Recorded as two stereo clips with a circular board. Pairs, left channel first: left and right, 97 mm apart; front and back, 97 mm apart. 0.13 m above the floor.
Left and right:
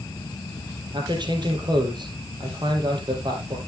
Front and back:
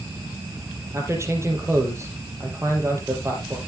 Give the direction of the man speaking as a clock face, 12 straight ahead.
4 o'clock.